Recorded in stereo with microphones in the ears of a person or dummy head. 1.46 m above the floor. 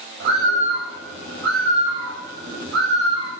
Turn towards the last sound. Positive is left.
turn(degrees=-75)  # may be behind; listen again after turning